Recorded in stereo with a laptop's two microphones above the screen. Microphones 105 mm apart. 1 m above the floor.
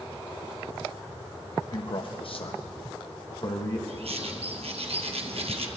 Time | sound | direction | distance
1.7 | a man speaking | 55° left (ahead or behind) | 1.3 m
3.9 | a bird | 70° right (ahead or behind) | 0.8 m